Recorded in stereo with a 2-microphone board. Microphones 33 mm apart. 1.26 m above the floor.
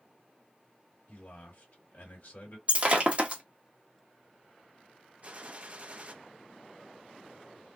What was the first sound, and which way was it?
A man speaking, 65° left (ahead or behind).